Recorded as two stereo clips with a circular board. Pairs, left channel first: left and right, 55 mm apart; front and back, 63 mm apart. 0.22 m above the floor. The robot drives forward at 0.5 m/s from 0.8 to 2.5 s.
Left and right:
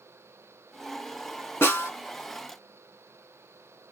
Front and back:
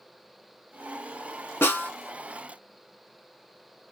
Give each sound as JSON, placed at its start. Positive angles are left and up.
{"t": 1.6, "sound": "a snare drum", "azimuth_deg": 55, "distance_m": 0.9}